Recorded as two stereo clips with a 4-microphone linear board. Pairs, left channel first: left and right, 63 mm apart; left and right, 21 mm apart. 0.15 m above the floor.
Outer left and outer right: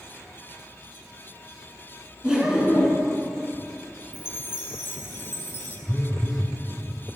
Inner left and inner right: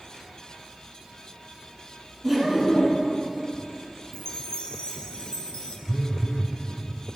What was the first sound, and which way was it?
Laughter, 15° right (ahead or behind).